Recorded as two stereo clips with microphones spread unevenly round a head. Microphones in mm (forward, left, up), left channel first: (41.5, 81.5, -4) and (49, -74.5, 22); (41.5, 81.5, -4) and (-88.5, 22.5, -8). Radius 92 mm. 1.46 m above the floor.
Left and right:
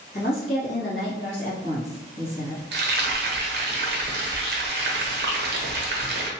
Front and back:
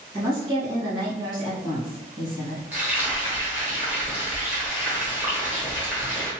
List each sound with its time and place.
0.1 s a woman speaking: 140° left, 1.7 m
2.7 s frying: 75° right, 0.8 m